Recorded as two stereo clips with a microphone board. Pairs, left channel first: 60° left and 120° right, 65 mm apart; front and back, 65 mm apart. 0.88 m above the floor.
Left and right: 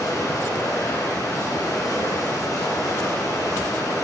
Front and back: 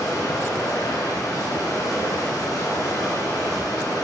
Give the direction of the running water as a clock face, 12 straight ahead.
11 o'clock.